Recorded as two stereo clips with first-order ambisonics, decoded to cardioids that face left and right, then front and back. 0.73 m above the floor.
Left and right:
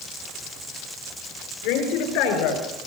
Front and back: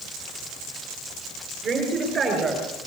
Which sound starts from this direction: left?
A woman speaking, at 1.6 s.